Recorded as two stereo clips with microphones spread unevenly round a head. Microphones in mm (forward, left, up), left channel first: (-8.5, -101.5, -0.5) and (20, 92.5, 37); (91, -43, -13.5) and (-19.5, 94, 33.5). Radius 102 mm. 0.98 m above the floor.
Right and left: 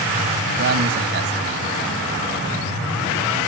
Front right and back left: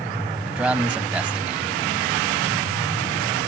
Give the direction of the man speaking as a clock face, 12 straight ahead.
10 o'clock.